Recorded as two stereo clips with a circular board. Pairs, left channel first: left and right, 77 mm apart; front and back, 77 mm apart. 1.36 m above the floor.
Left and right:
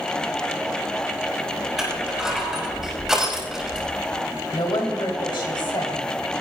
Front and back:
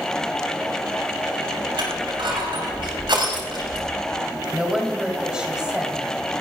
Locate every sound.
1.8 s crushing: 175° right, 6 m
4.5 s a woman speaking: 100° left, 3.5 m